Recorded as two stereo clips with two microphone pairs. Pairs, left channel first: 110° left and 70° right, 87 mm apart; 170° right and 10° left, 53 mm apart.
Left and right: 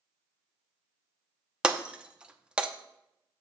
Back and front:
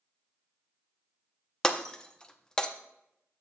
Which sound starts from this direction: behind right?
Breaking glass, at 1.6 s.